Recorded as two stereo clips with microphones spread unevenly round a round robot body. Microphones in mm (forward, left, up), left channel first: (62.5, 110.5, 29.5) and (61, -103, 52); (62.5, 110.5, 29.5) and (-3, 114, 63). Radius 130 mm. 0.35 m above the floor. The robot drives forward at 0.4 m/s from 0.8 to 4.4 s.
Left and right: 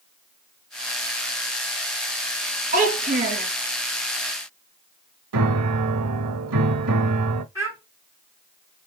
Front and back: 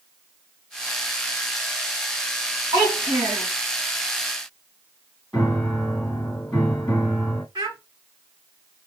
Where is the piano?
95° right, 0.5 m.